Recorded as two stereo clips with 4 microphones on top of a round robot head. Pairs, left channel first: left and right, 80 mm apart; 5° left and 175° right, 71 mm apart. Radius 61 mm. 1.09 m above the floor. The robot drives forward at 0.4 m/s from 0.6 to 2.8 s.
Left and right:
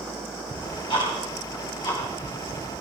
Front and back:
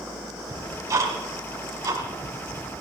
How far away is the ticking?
About 4 m.